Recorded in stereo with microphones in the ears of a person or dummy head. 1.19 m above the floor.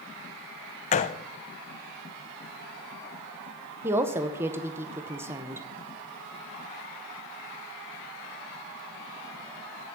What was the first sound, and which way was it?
A gunshot, 30° left (ahead or behind).